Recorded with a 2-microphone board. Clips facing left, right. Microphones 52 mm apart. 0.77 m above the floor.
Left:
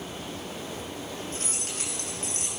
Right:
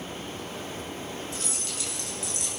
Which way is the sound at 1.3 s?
40° left (ahead or behind).